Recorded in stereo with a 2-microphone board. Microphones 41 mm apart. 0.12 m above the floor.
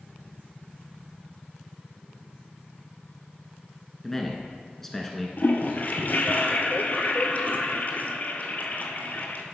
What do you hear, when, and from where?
4.0 s a man speaking: 10° left (ahead or behind), 1.2 m
5.4 s a toilet flushing: 50° left (ahead or behind), 0.9 m